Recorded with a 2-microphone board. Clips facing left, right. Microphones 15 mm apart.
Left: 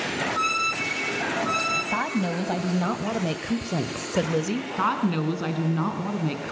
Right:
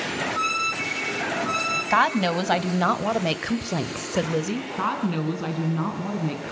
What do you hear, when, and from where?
1.9 s a woman speaking: 55° right (ahead or behind), 1.8 m; by 4.7 s 5° left (ahead or behind), 1.2 m
4.8 s a woman speaking: 10° left (ahead or behind), 3 m